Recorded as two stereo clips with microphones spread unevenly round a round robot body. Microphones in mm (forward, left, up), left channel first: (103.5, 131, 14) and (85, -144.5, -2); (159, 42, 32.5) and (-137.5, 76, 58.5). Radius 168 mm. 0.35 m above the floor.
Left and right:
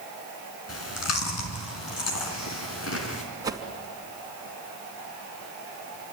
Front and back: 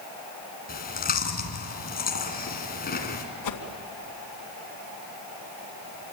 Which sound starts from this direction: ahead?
A whoosh, at 3.4 s.